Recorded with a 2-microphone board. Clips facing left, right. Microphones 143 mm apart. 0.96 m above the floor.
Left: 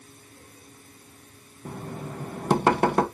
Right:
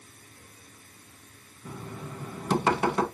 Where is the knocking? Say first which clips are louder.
Left 4 dB; 55° left (ahead or behind), 0.7 m.